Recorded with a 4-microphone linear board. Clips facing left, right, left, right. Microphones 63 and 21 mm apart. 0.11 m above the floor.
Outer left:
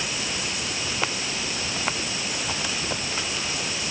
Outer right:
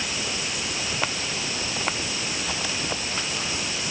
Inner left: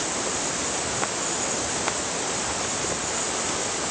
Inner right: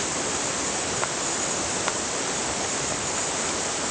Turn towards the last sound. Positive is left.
No sound to turn to.